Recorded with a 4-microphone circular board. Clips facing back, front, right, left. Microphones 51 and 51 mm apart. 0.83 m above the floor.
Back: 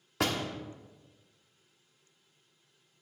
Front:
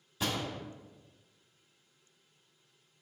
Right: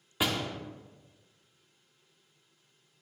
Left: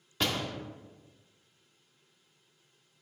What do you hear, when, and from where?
0.2 s a door slam: 170° right, 1.3 m